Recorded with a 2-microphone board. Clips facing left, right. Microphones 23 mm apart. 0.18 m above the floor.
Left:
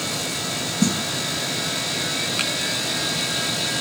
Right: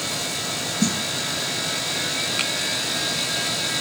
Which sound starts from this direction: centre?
A snare drum, at 0.8 s.